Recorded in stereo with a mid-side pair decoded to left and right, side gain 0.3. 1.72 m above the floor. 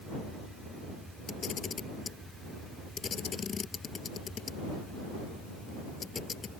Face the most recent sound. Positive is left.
turn(degrees=65)